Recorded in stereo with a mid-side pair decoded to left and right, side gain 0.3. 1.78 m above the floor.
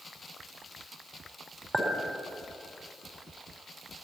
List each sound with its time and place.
1.7 s a clink: 35° right, 4 m